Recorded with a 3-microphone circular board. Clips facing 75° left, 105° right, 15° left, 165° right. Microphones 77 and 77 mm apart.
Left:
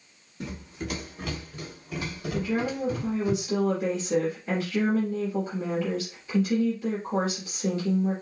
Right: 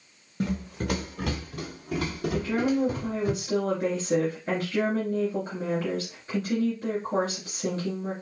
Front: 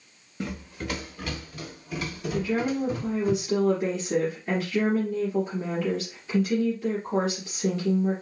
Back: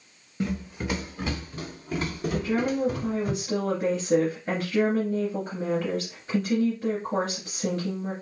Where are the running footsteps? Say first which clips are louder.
Right 6 dB, back 4 dB; 80° right, 1.2 m; by 3.3 s 130° right, 2 m.